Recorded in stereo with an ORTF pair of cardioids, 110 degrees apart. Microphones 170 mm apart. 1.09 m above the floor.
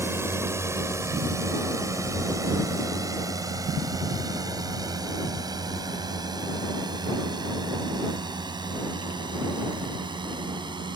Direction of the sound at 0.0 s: 15° right.